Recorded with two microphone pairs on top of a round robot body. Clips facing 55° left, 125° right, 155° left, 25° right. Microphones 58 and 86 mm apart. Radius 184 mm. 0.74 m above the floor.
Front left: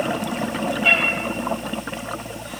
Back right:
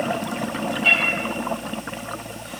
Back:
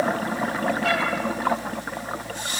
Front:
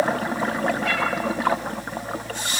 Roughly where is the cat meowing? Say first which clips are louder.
Front left 1 dB, back 1 dB; behind left.